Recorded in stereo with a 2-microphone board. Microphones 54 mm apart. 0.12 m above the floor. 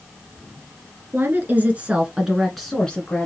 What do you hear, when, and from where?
1.1 s a woman speaking: 40° right (ahead or behind), 1.6 m; by 3.3 s 20° left (ahead or behind), 1.4 m